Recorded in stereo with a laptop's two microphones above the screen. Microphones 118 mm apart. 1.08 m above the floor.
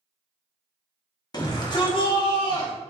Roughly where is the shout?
Left.